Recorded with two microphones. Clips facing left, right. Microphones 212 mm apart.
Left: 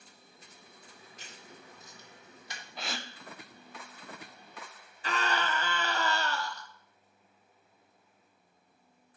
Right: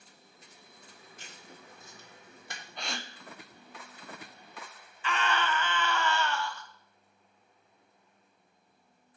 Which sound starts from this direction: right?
Writing, at 1.2 s.